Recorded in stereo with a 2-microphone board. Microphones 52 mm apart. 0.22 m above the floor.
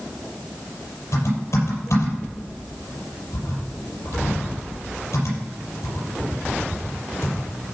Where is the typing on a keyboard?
70° left (ahead or behind), 6.5 m.